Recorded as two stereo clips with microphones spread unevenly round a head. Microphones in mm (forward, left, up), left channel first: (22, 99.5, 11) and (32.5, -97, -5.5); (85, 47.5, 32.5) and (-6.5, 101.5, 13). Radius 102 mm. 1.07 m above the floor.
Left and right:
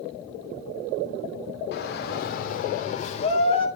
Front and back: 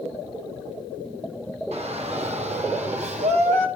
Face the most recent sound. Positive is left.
turn(degrees=160)